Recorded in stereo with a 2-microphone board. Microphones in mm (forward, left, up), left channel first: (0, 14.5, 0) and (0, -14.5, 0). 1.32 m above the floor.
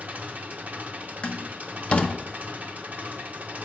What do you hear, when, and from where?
0.0 s an engine running: 55° right (ahead or behind), 0.9 m
1.2 s a door slam: 40° left (ahead or behind), 0.9 m